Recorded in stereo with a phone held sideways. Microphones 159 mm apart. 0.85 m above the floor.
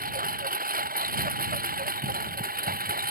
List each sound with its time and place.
0.0 s a lawn mower: 75° right (ahead or behind); by 3.1 s 80° right